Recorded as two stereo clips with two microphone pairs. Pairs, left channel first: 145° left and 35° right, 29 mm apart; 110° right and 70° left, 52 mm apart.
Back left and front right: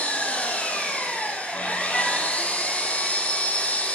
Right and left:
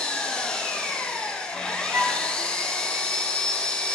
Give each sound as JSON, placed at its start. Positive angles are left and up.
{"t": 0.0, "sound": "an engine running", "azimuth_deg": 180, "distance_m": 1.3}
{"t": 1.9, "sound": "a flute", "azimuth_deg": 55, "distance_m": 2.0}